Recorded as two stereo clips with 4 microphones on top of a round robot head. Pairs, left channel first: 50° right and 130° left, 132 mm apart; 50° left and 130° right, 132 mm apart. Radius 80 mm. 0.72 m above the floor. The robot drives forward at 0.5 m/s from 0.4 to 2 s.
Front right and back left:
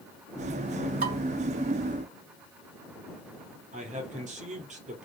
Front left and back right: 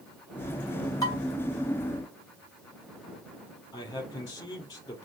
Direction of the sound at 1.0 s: 115° left.